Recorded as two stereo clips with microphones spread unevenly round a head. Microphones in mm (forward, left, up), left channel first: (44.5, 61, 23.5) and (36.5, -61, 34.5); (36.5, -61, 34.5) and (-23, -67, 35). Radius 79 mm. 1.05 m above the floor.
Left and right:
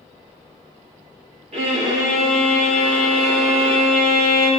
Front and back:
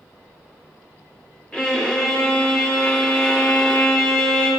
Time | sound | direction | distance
1.5 | a violin | 65° right | 2.5 m